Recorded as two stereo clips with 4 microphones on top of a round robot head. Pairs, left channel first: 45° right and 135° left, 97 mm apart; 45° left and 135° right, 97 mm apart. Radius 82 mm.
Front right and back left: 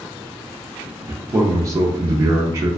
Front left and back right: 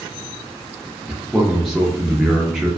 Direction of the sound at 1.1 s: 140° left.